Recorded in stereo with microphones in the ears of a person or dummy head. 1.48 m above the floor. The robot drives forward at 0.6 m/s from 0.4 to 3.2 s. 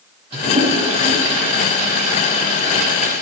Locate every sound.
0.3 s a toilet flushing: 35° right (ahead or behind), 4.5 m; by 3.2 s 50° right (ahead or behind), 3.5 m